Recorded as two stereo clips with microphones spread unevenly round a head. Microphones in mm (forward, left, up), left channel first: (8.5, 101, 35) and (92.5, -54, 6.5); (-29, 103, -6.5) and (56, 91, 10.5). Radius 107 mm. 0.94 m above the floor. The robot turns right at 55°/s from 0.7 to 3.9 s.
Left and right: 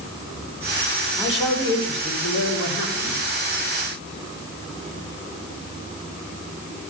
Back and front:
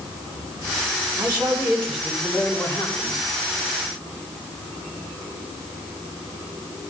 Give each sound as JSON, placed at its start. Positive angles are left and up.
{"t": 1.2, "sound": "a man speaking", "azimuth_deg": 45, "distance_m": 6.5}